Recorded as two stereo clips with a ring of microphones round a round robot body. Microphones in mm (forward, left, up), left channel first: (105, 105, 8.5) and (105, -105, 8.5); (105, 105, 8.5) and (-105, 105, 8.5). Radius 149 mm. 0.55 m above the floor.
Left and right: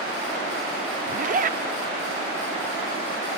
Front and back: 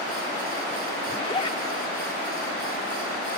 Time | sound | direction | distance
1.1 | a zipper | 60° right | 0.7 m